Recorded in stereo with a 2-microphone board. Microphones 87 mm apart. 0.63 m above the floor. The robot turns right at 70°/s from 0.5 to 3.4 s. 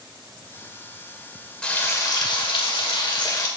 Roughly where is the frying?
Ahead.